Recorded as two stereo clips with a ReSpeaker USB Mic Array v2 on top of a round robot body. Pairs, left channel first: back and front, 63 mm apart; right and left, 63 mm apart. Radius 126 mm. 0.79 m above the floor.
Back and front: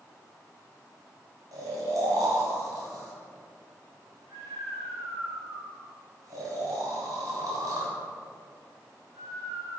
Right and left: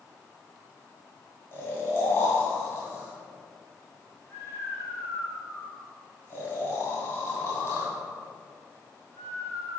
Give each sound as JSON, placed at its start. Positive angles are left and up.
{"t": 1.5, "sound": "snoring", "azimuth_deg": -35, "distance_m": 2.0}